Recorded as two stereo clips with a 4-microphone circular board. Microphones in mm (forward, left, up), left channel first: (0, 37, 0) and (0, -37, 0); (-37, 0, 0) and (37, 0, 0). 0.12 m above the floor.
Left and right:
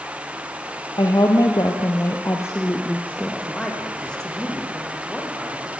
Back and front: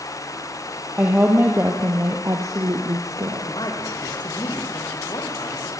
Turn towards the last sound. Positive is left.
turn(degrees=170)